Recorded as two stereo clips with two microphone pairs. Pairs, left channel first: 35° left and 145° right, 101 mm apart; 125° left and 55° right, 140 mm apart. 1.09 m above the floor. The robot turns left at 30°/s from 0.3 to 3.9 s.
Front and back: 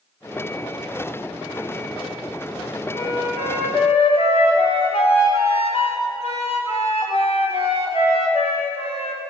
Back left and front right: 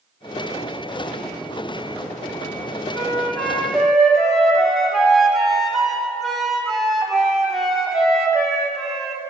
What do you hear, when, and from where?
2.9 s a flute: 60° left, 1.2 m; by 9.2 s 35° left, 1.2 m